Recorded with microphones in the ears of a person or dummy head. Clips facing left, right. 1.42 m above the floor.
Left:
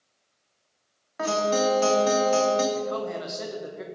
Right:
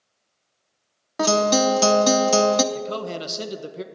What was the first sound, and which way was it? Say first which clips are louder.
A guitar: right 5 dB; 60° right (ahead or behind).